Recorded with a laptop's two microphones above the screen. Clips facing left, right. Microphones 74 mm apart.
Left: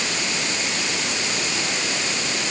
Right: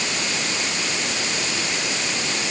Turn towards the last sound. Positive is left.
No sound to turn to.